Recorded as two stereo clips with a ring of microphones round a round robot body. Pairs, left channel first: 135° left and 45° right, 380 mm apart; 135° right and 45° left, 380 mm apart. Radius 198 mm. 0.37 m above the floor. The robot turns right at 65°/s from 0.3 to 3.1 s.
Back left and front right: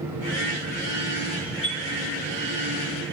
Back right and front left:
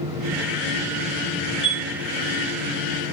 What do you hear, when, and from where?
1.6 s a chime: 165° right, 1.5 m; by 1.8 s 155° right, 1.5 m